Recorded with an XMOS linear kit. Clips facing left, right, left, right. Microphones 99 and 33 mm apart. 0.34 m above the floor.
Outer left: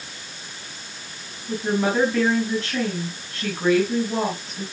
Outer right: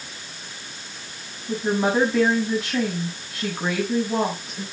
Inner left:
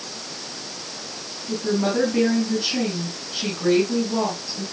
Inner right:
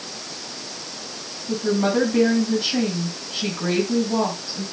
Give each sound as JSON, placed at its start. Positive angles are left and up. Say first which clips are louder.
{"t": 1.5, "sound": "a woman speaking", "louder": "outer right 1 dB, inner right 2 dB", "side_deg": -15, "distance_m": 3.5}